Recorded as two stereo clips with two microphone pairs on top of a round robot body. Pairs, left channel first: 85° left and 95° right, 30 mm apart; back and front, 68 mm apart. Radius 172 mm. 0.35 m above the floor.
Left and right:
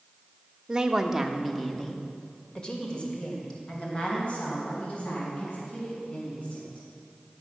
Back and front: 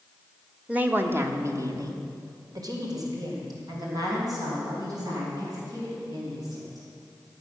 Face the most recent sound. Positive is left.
turn(degrees=35)